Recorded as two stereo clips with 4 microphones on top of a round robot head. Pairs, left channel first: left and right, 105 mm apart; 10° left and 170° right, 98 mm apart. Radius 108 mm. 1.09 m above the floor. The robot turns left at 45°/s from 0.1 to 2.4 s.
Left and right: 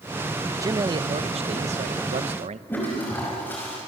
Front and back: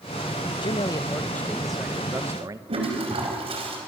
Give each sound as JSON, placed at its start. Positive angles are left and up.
{"t": 0.6, "sound": "a man speaking", "azimuth_deg": -30, "distance_m": 0.9}
{"t": 2.7, "sound": "a toilet flushing", "azimuth_deg": 165, "distance_m": 4.5}